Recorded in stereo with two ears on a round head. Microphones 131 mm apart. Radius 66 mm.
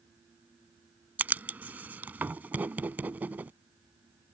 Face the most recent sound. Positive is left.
turn(degrees=-10)  # may be behind; listen again after turning